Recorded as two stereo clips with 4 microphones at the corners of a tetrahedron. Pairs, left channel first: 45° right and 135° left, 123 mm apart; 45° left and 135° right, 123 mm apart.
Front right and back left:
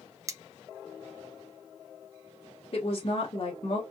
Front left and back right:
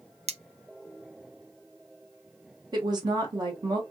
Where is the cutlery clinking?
160° right, 0.5 m.